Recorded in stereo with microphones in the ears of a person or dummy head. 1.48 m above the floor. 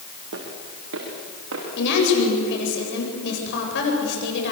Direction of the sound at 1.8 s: 65° left (ahead or behind).